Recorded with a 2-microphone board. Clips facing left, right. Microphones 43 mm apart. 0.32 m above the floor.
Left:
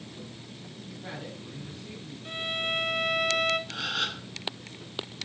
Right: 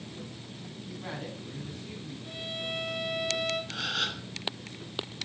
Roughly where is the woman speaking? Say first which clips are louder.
Right 1 dB; right.